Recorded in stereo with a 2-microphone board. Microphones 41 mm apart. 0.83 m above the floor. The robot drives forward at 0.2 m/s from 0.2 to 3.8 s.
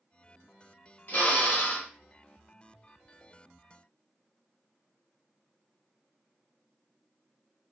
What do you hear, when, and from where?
1.1 s a drill: 45° left (ahead or behind), 0.7 m; by 1.9 s 40° left (ahead or behind), 0.8 m